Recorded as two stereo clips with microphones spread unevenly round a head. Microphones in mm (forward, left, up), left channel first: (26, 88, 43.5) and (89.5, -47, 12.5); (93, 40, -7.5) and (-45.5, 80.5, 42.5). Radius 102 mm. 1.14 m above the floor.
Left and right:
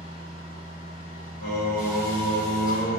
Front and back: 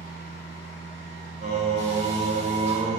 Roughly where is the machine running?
Behind.